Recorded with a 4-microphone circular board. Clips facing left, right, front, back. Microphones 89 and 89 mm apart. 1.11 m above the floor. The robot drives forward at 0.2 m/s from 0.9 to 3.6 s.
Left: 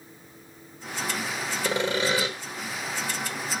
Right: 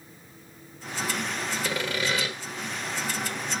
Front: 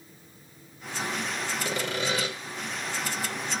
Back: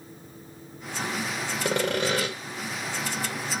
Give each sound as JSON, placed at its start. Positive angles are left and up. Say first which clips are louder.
{"t": 1.6, "sound": "sawing", "louder": "left 6 dB, back 7 dB", "azimuth_deg": 150, "distance_m": 2.0}